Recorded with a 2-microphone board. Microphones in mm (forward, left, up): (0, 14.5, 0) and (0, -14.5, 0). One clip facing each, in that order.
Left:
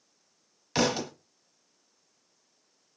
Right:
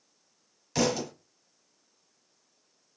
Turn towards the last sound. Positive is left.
turn(degrees=30)  # may be behind; listen again after turning